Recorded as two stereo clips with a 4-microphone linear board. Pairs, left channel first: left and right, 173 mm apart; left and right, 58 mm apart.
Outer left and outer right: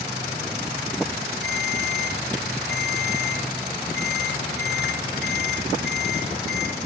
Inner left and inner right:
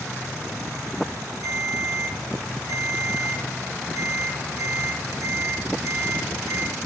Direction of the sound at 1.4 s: 75° right (ahead or behind).